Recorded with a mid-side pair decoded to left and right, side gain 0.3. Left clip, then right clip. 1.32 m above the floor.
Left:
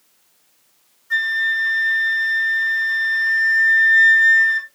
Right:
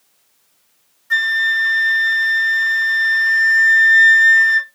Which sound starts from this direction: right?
A flute, at 1.1 s.